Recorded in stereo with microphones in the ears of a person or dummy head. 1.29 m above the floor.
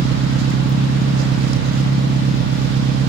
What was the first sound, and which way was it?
An engine running, 60° right (ahead or behind).